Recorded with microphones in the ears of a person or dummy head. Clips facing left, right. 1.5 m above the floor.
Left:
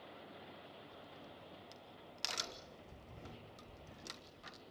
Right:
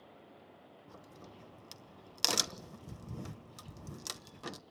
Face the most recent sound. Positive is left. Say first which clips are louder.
# right 1 dB
turn(degrees=-80)